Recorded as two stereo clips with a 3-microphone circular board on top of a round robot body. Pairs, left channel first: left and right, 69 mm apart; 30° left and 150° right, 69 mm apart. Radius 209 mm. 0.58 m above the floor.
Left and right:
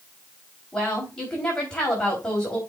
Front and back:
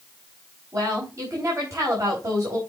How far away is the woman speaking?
About 4 m.